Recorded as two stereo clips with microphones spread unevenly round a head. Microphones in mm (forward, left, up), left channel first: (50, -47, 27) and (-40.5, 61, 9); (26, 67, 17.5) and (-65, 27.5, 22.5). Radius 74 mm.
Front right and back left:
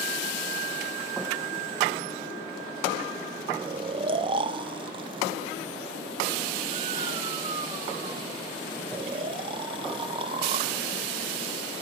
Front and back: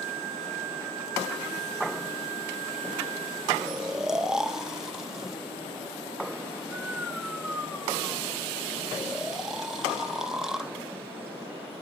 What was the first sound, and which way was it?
Snoring, 120° left.